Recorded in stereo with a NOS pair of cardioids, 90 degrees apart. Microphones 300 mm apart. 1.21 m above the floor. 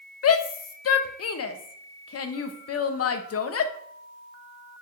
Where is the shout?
50° left, 1.2 m.